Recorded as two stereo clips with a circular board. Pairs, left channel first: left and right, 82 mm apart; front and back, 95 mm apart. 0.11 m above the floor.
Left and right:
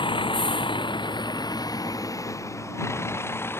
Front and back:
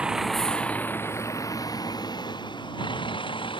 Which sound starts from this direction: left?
A vehicle, at 0.0 s.